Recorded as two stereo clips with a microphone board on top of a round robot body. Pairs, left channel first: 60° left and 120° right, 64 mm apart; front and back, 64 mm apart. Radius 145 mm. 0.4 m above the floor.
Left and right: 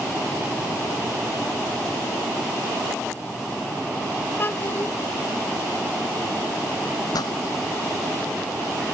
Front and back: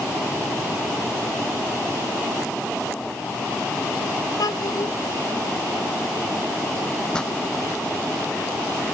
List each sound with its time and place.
4.4 s a child speaking: 5° left
7.1 s a pop: 80° left